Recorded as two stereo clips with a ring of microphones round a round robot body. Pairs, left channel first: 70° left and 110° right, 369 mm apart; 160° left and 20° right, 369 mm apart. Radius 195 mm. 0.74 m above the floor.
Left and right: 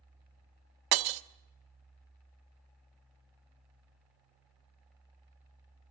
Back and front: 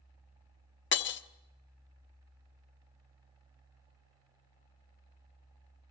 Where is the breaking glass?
140° right, 1.0 m.